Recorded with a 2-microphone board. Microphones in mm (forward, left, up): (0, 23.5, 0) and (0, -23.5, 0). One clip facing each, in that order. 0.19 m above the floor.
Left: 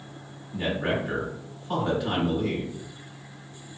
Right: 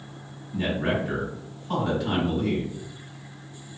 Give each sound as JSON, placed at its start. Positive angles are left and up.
{"t": 0.5, "sound": "a man speaking", "side_deg": 5, "distance_m": 1.6}